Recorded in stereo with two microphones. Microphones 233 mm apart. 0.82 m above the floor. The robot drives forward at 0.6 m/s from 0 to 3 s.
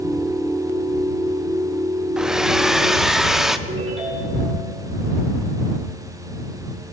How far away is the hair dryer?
About 0.7 m.